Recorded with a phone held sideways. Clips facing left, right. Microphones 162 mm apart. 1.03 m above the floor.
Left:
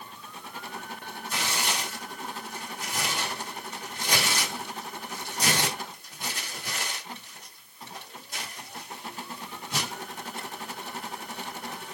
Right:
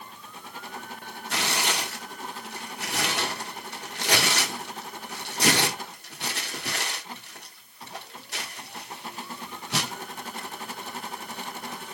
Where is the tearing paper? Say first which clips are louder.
Right 3 dB; 70° right (ahead or behind), 1.1 m.